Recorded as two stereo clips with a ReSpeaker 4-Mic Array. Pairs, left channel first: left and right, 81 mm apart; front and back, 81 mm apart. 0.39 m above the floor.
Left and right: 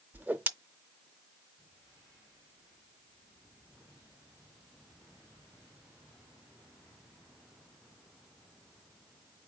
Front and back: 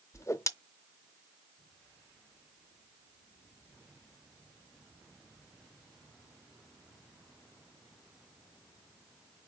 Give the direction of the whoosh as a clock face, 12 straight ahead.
1 o'clock.